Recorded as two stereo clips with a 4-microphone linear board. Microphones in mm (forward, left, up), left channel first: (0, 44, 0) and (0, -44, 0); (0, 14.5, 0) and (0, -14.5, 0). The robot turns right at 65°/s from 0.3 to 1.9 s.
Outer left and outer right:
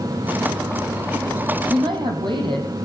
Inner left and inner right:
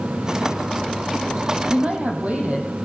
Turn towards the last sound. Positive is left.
turn(degrees=-60)  # may be behind; listen again after turning